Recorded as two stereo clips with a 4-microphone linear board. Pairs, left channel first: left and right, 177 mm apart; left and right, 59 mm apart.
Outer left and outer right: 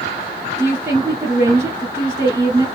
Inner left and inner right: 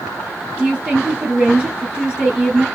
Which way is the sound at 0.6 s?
10° right (ahead or behind).